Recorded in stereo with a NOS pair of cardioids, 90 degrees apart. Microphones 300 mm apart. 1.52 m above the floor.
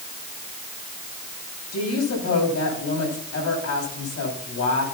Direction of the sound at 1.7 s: 60° left.